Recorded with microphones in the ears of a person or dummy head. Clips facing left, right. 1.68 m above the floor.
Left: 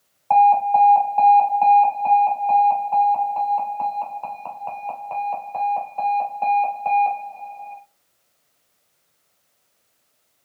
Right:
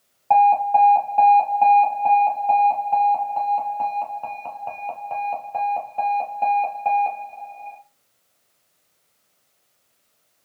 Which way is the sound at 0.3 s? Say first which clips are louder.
Left 1 dB; 10° right (ahead or behind).